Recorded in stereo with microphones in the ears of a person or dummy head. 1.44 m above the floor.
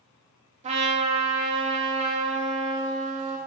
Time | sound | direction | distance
0.6 | a trumpet | 25° right (ahead or behind) | 0.8 m